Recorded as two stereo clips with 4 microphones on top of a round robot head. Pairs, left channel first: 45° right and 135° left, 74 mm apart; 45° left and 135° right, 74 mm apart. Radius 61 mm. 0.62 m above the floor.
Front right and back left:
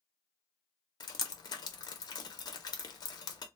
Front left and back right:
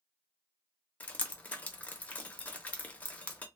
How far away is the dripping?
About 0.7 m.